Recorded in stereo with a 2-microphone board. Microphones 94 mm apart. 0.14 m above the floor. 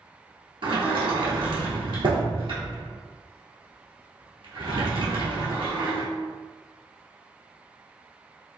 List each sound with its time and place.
0.6 s a sliding door: 65° right (ahead or behind), 1.0 m